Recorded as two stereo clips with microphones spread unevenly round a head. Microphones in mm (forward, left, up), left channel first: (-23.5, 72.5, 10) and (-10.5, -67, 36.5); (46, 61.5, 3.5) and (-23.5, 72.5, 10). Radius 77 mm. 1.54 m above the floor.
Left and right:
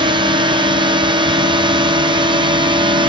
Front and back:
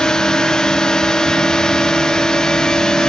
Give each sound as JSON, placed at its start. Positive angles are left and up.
{"t": 0.0, "sound": "a drone", "azimuth_deg": -70}